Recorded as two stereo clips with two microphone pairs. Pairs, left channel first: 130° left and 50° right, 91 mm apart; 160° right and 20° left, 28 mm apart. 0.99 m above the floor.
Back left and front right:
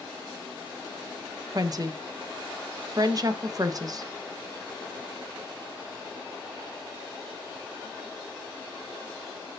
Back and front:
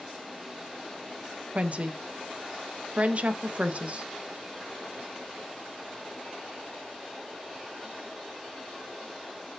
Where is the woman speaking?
5° right, 0.7 m.